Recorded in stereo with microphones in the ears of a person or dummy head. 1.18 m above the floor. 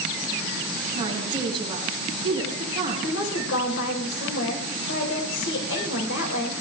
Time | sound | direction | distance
0.9 | a woman speaking | 30° right (ahead or behind) | 9.5 m
3.0 | a woman speaking | 75° left (ahead or behind) | 4 m